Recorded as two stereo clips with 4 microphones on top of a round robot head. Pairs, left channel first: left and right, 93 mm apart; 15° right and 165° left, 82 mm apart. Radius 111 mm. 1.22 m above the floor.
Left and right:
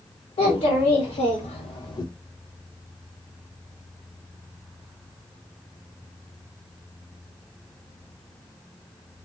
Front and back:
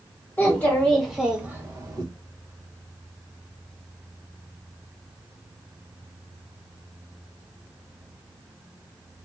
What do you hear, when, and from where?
0.4 s a child speaking: 55° left, 1.0 m; by 2.0 s 130° left, 0.7 m